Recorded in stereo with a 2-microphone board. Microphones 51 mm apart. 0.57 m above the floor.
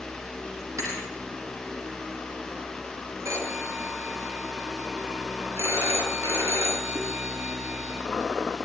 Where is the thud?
80° right, 8.5 m.